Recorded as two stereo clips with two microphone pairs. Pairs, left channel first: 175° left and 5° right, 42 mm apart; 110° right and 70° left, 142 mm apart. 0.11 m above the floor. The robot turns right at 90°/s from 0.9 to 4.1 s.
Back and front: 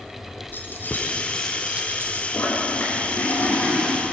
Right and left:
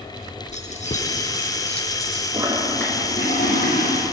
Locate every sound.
0.5 s keys jangling: 145° right, 3.5 m; by 2.2 s 25° right, 3.5 m
2.3 s a toilet flushing: 130° left, 5.5 m; by 4.0 s 80° right, 5.5 m